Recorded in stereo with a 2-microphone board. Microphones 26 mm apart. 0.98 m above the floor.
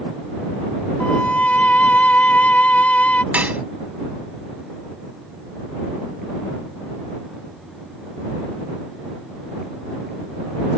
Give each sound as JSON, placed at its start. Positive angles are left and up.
{"t": 1.0, "sound": "a violin", "side_deg": 70}
{"t": 3.3, "sound": "dishes clattering", "side_deg": -80}